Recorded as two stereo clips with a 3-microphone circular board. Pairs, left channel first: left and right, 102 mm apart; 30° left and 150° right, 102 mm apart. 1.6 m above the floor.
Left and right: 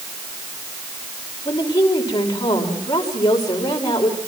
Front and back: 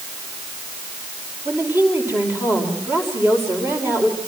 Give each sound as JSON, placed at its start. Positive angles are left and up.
{"t": 1.4, "sound": "a woman speaking", "azimuth_deg": 140, "distance_m": 5.5}